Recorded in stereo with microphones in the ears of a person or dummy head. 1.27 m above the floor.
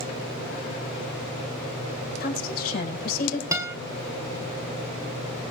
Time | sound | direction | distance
2.2 | a woman speaking | 60° left (ahead or behind) | 5.5 m
3.5 | a guitar | 5° right (ahead or behind) | 1.7 m